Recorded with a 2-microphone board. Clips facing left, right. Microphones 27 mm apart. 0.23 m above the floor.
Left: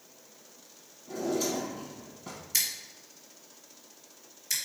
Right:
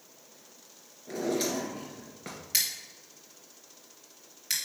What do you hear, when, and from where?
1.1 s a drawer: 70° right (ahead or behind), 1.6 m
2.5 s scissors: 55° right (ahead or behind), 2.5 m